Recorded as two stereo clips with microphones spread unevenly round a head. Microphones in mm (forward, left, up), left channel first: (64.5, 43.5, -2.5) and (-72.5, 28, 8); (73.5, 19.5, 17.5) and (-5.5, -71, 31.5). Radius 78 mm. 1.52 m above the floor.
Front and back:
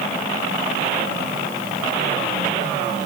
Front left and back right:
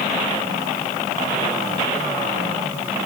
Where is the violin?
I don't hear a violin.